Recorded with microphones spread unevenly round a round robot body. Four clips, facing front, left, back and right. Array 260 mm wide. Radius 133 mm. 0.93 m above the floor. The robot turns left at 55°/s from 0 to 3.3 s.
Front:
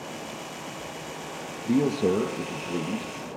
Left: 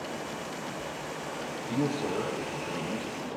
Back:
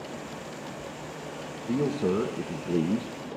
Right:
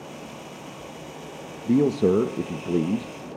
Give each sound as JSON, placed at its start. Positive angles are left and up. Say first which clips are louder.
{"t": 1.7, "sound": "a man speaking", "louder": "right 11 dB, front 4 dB", "azimuth_deg": -50, "distance_m": 0.7}